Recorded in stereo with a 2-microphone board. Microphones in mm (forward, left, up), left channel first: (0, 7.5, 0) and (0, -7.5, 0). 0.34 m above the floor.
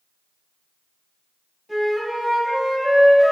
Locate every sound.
1.7 s a flute: centre (ahead or behind), 1.2 m